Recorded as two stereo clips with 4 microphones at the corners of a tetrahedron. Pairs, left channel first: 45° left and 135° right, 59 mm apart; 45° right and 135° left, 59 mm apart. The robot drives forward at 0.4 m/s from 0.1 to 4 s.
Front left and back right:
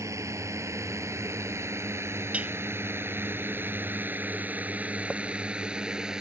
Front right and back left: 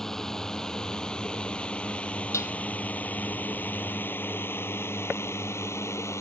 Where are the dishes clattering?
70° right.